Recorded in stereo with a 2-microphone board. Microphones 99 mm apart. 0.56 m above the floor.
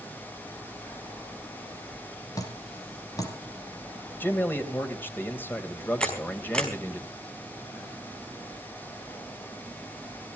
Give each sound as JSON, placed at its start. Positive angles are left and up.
{"t": 2.4, "sound": "dripping", "side_deg": 35, "distance_m": 3.5}
{"t": 4.2, "sound": "a man speaking", "side_deg": 20, "distance_m": 3.0}
{"t": 6.0, "sound": "a camera shutter", "side_deg": 10, "distance_m": 5.0}